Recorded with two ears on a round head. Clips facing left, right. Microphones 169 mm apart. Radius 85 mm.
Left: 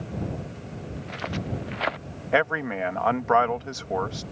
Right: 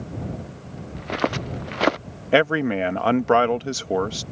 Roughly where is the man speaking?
Right.